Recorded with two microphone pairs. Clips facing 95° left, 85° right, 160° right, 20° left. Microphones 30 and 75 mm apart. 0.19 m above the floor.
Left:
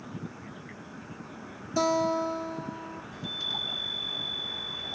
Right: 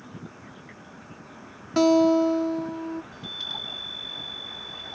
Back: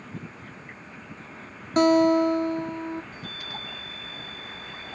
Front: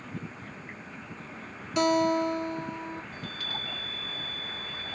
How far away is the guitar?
About 0.9 m.